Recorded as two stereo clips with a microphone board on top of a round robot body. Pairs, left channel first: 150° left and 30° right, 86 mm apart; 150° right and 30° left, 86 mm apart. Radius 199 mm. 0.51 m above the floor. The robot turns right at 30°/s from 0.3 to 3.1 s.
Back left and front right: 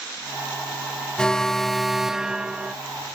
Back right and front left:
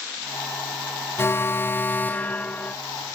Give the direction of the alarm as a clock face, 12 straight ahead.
5 o'clock.